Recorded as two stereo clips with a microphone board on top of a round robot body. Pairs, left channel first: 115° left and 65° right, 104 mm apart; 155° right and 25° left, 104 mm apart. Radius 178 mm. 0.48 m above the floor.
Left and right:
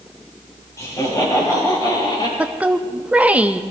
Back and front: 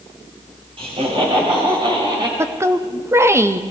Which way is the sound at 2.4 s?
5° right.